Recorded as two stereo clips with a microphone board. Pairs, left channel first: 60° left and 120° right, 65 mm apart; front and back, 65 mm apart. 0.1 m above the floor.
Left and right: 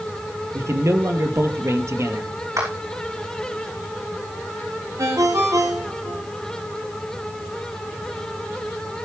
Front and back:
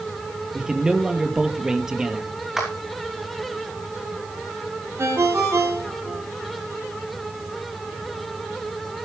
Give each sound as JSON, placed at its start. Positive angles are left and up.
{"t": 0.5, "sound": "a man speaking", "azimuth_deg": -105, "distance_m": 2.0}
{"t": 2.6, "sound": "a clap", "azimuth_deg": -95, "distance_m": 5.5}
{"t": 5.0, "sound": "a ringtone", "azimuth_deg": -140, "distance_m": 5.0}